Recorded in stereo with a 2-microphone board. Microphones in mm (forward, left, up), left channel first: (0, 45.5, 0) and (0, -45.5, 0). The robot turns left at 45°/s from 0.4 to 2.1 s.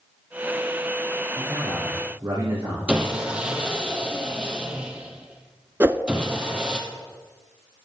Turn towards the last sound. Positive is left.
turn(degrees=-25)  # may be behind; listen again after turning